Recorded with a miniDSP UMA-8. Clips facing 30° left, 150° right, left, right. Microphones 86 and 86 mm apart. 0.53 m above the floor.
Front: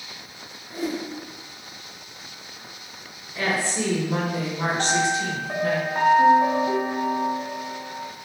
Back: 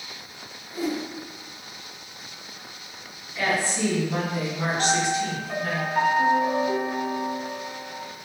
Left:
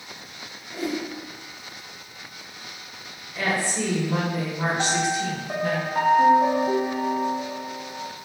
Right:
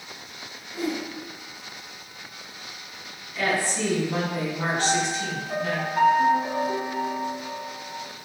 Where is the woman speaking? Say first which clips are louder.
Even, even; 40° left, 0.9 m.